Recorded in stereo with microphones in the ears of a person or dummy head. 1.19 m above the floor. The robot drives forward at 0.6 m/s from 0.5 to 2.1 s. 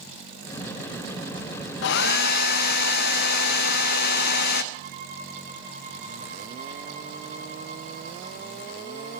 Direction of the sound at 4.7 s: 50° right (ahead or behind).